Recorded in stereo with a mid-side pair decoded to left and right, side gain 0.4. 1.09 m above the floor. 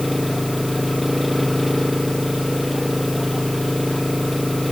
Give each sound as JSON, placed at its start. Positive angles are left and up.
{"t": 0.0, "sound": "an engine running", "azimuth_deg": 0}